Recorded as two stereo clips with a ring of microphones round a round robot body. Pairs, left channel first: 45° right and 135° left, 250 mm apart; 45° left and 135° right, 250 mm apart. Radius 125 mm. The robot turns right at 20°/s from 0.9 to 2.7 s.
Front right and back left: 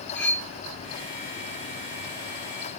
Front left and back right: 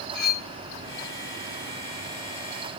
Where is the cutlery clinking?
40° left, 3.5 m.